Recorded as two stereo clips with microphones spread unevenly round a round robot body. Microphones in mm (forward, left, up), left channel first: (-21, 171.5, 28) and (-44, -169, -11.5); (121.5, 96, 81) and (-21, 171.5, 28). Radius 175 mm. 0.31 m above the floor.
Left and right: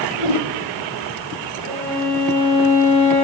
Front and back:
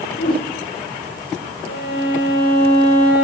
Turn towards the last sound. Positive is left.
turn(degrees=-60)